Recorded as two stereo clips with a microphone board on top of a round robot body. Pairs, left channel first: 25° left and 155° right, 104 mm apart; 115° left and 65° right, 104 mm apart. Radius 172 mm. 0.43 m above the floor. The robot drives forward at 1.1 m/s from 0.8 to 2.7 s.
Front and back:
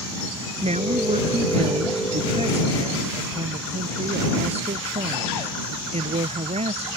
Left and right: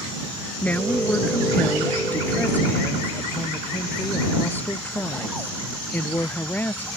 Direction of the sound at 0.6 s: 170° right.